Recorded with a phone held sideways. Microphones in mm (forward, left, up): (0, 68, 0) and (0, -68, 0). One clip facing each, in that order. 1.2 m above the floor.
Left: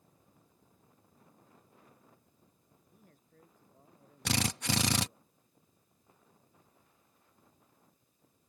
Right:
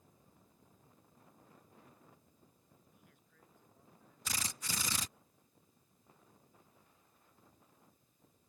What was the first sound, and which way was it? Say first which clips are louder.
A man speaking: left 4 dB; 40° left (ahead or behind).